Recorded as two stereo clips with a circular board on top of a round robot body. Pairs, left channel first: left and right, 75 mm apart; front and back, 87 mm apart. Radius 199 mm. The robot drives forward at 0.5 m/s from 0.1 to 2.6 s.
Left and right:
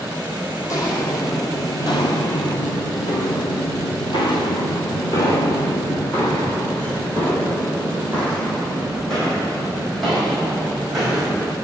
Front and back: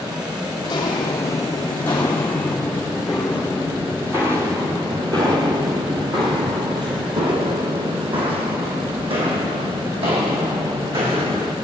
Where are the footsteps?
45° left, 3 m; by 11.5 s straight behind, 4.5 m.